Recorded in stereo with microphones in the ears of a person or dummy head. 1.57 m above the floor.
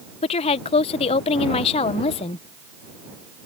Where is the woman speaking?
35° left (ahead or behind).